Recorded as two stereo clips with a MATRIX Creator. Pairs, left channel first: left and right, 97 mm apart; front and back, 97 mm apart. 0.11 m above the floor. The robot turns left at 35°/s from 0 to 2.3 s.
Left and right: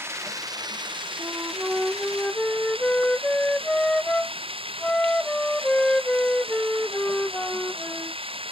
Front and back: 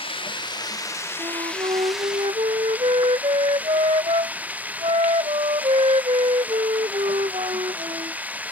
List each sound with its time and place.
0.0 s running water: 25° right; by 8.5 s 105° right
1.2 s a flute: 150° right; by 8.2 s 170° left